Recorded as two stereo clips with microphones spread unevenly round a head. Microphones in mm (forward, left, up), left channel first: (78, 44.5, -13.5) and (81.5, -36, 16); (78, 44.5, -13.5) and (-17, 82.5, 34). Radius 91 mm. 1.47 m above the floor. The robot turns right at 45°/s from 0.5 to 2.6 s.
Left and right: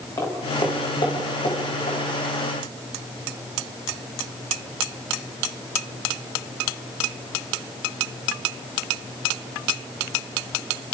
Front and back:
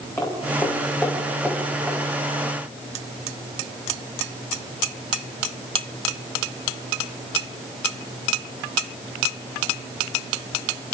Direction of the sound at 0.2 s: 50° left.